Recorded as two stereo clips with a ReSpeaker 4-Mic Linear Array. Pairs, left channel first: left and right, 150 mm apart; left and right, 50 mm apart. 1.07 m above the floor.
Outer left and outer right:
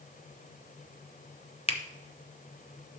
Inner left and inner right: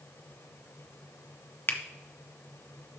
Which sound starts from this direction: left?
A finger snap, at 1.7 s.